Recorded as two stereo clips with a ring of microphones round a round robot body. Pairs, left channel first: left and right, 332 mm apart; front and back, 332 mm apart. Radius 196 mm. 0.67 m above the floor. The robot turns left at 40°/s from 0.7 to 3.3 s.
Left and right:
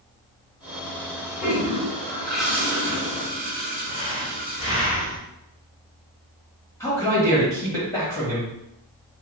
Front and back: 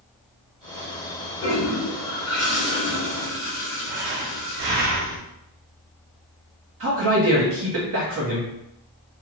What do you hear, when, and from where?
1.4 s a toilet flushing: 40° left, 1.3 m; by 4.9 s 35° right, 1.3 m
3.9 s breathing: 160° left, 0.7 m
6.8 s a man speaking: 170° left, 1.2 m